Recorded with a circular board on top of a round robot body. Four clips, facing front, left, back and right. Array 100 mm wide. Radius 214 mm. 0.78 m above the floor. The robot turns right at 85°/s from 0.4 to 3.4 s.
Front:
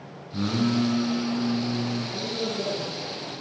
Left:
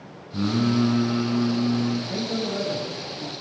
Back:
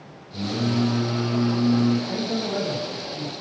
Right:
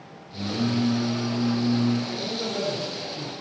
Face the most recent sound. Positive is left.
turn(degrees=-115)